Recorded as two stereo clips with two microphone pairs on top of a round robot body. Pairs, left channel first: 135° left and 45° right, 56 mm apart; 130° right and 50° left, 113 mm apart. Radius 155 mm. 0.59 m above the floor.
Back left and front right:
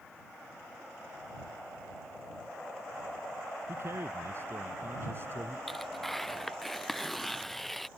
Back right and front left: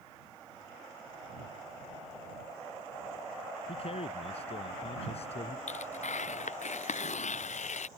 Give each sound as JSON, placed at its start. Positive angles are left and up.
{"t": 3.7, "sound": "a man speaking", "azimuth_deg": -95}
{"t": 5.7, "sound": "tearing paper", "azimuth_deg": -140}